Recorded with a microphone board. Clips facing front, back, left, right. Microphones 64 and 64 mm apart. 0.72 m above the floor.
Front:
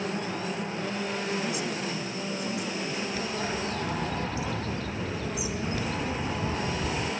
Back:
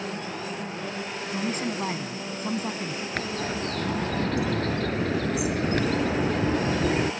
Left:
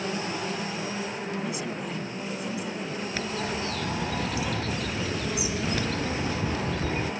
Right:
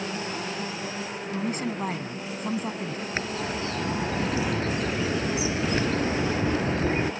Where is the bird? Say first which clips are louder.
Back 1 dB, right 1 dB; 150° right.